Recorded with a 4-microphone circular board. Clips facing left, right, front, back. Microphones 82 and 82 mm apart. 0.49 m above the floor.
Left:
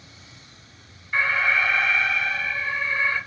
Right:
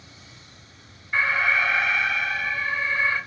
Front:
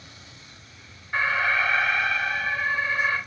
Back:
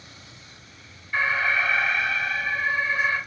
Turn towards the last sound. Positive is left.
turn(degrees=-10)